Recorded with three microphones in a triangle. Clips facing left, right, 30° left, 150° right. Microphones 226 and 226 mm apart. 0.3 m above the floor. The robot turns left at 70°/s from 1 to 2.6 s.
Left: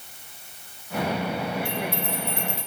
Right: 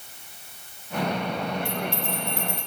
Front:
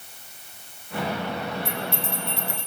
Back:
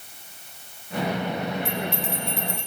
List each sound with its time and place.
1.6 s a bell: 60° right, 4 m; by 2.7 s 125° right, 4 m